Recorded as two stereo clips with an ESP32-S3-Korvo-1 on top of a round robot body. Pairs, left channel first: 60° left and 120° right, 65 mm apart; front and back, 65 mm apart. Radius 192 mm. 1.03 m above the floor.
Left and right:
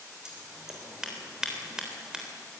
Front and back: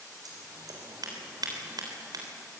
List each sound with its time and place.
0.2 s scissors: 160° left, 3.5 m